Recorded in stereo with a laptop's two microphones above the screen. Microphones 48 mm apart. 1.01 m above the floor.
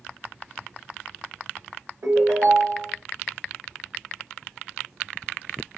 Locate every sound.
2.0 s a ringtone: 75° right (ahead or behind), 1.4 m